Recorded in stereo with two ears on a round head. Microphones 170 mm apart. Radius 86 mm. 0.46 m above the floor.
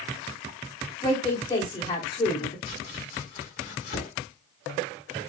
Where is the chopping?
35° left (ahead or behind), 1.6 m.